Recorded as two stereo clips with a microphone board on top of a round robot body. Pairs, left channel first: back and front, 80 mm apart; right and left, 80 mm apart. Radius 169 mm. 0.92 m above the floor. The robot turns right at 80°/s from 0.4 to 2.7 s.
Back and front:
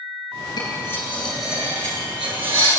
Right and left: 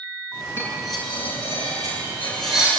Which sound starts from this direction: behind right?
Cutlery clinking, at 0.6 s.